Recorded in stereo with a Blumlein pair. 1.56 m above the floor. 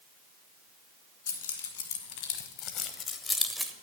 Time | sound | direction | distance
1.3 | keys jangling | 65° left | 1.9 m